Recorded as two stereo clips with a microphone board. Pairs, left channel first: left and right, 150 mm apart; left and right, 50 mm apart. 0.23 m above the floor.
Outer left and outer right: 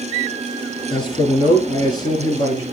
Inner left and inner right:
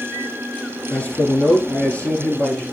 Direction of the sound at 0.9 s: 35° left (ahead or behind).